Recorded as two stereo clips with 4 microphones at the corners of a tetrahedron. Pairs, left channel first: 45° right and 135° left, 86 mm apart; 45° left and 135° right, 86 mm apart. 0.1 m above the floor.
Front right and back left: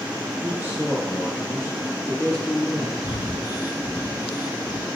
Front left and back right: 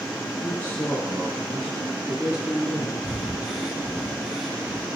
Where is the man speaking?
85° left, 2.0 m; by 3.1 s 95° right, 1.9 m.